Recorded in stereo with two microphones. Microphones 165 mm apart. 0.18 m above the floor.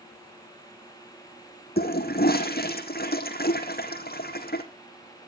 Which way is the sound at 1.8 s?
70° left (ahead or behind).